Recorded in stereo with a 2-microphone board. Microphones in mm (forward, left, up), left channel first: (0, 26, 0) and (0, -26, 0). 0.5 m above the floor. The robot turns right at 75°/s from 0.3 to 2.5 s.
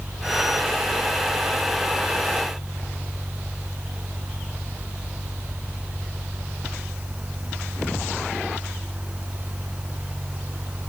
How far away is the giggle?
I don't hear a giggle.